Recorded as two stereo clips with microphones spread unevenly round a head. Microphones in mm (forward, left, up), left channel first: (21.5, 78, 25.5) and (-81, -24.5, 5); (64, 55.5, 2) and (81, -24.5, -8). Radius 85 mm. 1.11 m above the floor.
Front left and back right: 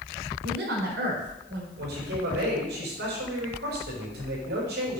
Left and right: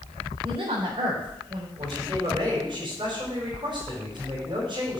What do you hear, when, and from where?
0.4 s a woman speaking: 120° right, 4 m
1.8 s a man speaking: 140° right, 5.5 m